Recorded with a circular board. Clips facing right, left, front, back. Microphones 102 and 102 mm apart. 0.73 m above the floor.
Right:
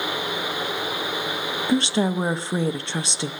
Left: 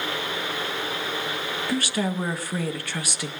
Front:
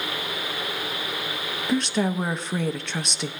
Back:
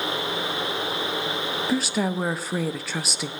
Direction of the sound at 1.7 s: 100° right.